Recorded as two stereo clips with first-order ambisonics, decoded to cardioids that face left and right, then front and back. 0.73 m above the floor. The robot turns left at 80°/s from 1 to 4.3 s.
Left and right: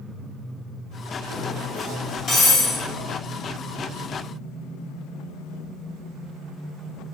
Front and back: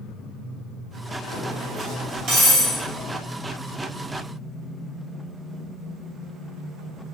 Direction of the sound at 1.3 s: 130° right.